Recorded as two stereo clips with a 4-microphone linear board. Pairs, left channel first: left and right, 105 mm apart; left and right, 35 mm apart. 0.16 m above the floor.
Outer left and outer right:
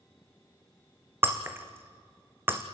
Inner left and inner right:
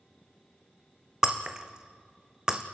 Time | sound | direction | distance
1.2 | breaking glass | 20° right (ahead or behind) | 1.8 m